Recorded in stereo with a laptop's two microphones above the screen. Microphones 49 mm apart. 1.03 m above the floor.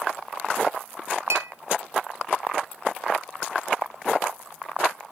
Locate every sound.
1.3 s a clink: 85° right, 1.2 m